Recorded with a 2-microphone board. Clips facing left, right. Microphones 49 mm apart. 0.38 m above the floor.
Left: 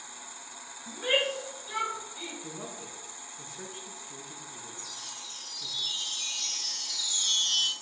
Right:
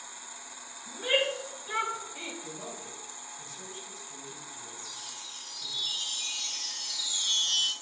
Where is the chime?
5° right (ahead or behind), 1.0 m.